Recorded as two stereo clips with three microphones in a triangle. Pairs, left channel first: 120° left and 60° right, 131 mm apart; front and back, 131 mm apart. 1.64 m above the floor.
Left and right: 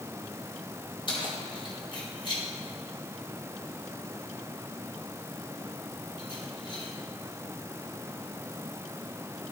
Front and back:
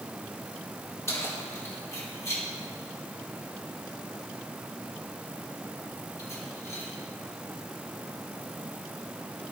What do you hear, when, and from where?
1.1 s keys jangling: 70° left, 4 m